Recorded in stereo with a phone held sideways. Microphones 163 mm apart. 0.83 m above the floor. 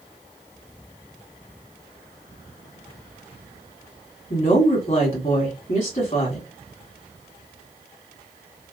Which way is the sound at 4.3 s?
50° left (ahead or behind).